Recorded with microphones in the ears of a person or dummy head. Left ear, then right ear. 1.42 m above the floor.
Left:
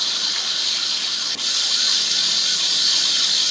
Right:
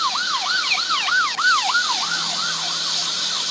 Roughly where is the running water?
Left.